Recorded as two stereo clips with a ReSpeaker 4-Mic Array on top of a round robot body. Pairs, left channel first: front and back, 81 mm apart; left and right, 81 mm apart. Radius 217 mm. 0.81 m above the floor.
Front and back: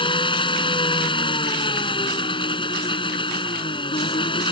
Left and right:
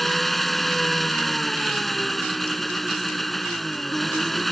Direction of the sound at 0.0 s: Straight ahead.